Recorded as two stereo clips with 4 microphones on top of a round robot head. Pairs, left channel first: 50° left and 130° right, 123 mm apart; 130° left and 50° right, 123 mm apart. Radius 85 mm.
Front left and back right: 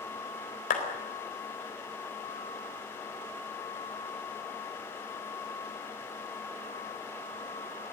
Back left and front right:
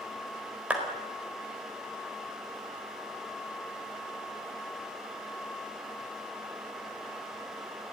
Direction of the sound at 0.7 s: 30° left.